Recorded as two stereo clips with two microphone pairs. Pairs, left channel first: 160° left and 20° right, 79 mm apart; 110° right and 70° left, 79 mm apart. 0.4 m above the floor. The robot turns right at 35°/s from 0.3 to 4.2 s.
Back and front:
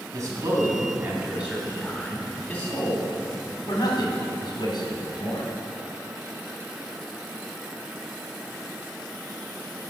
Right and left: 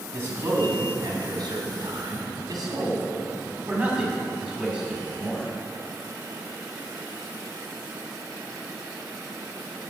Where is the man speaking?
10° left, 2.5 m; by 5.5 s 145° left, 2.5 m.